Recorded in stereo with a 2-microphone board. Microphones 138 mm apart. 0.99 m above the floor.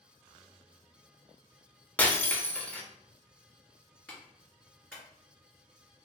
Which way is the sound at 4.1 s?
10° left (ahead or behind).